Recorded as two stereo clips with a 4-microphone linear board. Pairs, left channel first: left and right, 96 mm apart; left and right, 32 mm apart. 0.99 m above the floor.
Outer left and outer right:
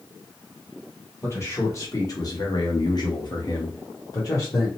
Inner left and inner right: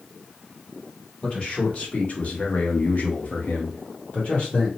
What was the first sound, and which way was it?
A man speaking, 25° left (ahead or behind).